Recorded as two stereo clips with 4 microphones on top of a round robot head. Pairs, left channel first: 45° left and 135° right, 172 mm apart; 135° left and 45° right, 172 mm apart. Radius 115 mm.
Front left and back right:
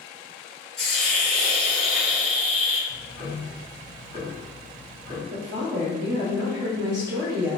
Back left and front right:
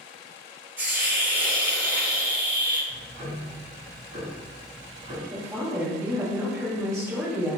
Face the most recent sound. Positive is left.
turn(degrees=-120)